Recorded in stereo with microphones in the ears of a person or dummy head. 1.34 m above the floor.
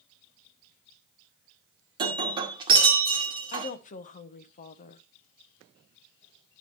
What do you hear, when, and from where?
2.0 s breaking glass: 20° right (ahead or behind), 1.8 m
3.5 s a woman speaking: 45° left (ahead or behind), 0.9 m